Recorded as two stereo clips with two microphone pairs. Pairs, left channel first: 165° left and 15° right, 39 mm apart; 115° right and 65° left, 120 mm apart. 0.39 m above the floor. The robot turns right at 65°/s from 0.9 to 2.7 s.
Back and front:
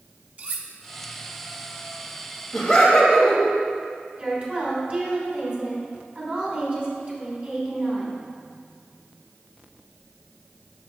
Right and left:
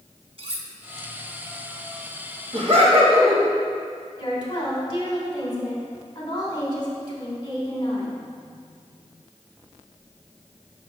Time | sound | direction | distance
0.4 | cutlery clinking | 30° left | 0.9 m
2.5 | laughter | 75° left | 2.5 m
4.2 | a woman speaking | 70° right | 2.5 m